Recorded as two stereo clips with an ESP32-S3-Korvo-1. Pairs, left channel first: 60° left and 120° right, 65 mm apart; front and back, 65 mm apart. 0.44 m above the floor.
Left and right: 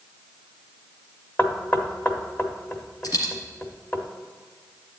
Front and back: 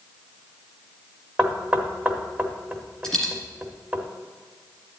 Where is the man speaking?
I don't hear a man speaking.